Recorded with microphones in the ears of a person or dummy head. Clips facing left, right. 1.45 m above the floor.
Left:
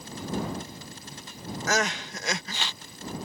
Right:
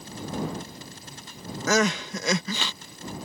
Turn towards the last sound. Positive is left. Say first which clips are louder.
# right 5 dB
turn(degrees=-80)